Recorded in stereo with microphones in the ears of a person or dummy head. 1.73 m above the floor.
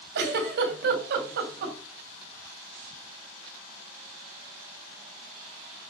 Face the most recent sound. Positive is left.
turn(degrees=-60)  # may be behind; listen again after turning